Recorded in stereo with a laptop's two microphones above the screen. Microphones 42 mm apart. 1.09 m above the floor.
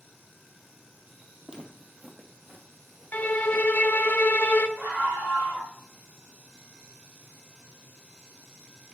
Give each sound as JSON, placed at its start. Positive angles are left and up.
{"t": 1.5, "sound": "footsteps", "side_deg": -15, "distance_m": 1.4}
{"t": 3.1, "sound": "a violin", "side_deg": 45, "distance_m": 0.6}
{"t": 4.8, "sound": "a scream", "side_deg": -60, "distance_m": 4.0}